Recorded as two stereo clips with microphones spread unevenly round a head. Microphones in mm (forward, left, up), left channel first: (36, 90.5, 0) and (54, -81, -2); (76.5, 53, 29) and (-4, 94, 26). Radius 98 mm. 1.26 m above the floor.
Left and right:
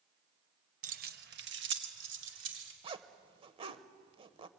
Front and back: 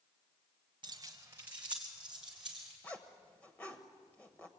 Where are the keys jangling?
140° right, 0.7 m; by 2.7 s 120° right, 3 m.